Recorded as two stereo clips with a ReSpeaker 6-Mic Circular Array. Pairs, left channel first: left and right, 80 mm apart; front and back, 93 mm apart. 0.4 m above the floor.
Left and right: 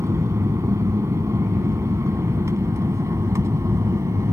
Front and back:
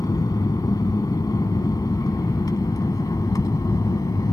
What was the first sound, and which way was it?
An aircraft, 45° right.